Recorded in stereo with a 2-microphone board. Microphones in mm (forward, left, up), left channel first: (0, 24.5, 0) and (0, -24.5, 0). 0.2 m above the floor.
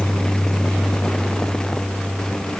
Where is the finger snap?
No finger snap in this recording.